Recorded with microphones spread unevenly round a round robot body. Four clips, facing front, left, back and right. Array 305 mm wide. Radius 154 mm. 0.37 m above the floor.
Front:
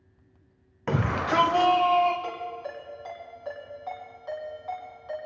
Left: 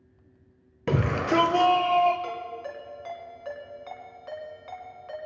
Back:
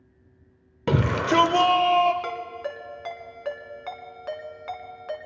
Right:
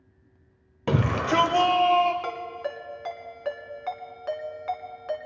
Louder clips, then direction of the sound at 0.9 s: Right 1 dB, back 4 dB; 165° left.